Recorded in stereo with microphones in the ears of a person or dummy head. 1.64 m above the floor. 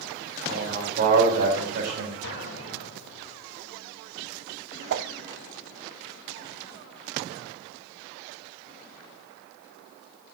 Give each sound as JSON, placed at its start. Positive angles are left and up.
{"t": 0.5, "sound": "a man speaking", "side_deg": -40, "distance_m": 3.0}
{"t": 2.2, "sound": "an explosion", "side_deg": 70, "distance_m": 2.5}
{"t": 4.9, "sound": "a whoosh", "side_deg": -65, "distance_m": 0.6}